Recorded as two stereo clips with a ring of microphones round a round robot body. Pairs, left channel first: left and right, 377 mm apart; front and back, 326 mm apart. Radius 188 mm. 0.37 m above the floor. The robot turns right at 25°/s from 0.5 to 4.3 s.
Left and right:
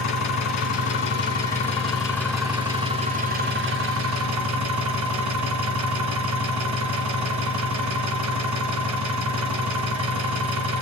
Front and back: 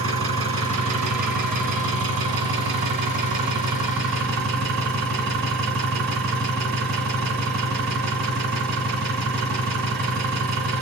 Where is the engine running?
135° left, 2.5 m; by 10.8 s 130° right, 2.5 m.